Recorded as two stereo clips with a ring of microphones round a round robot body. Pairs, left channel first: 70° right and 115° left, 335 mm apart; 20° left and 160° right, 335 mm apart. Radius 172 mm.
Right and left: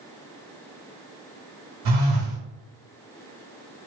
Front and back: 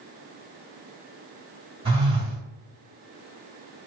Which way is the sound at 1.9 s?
130° left.